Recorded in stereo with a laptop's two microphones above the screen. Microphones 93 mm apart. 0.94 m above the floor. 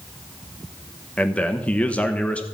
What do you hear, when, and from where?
1.2 s a man speaking: 15° left (ahead or behind), 1.0 m